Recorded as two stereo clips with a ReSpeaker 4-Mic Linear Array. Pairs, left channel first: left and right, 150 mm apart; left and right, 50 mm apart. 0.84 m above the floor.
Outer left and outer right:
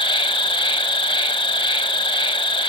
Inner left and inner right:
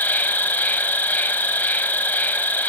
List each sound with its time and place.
0.0 s an insect: 35° left (ahead or behind), 0.8 m